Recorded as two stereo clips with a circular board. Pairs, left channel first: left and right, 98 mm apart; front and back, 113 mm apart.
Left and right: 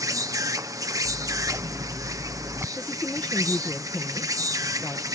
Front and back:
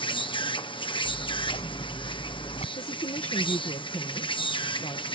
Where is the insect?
40° right.